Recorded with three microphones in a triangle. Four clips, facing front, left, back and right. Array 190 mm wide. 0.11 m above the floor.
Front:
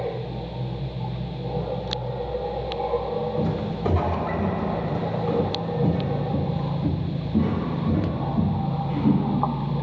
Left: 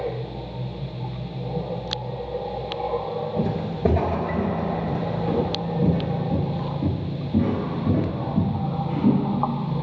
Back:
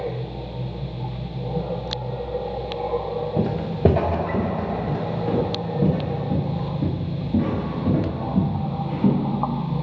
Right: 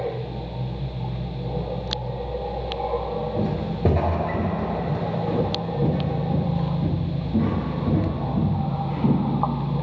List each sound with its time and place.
3.4 s footsteps: 175° right, 1.8 m; by 9.2 s 175° left, 6 m